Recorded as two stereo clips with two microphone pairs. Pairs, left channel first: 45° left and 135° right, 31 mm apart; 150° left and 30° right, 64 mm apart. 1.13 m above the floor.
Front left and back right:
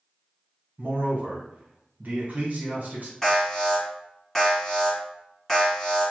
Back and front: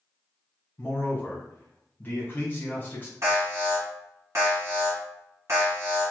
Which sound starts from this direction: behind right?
A man speaking, at 0.8 s.